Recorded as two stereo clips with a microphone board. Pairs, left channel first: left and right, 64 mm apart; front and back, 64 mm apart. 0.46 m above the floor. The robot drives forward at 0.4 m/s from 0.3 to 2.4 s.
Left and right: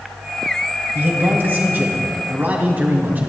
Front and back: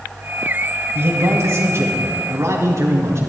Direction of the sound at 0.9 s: 140° right.